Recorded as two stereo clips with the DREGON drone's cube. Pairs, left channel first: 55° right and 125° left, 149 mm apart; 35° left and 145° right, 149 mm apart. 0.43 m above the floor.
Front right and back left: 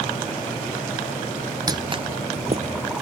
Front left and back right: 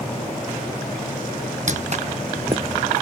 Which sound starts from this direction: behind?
Footsteps, at 1.7 s.